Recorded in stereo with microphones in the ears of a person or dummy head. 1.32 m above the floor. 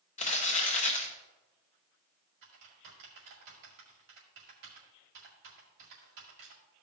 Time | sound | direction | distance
0.2 | crumpling | 40° left (ahead or behind) | 0.9 m
2.4 | typing on a keyboard | 65° right (ahead or behind) | 2 m